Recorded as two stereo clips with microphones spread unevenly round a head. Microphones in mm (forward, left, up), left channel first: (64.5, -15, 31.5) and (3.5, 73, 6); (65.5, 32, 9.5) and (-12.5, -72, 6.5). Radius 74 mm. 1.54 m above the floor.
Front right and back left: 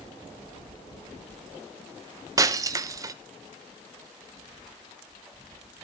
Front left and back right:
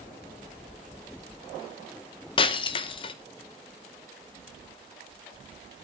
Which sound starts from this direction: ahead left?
Breaking glass, at 2.4 s.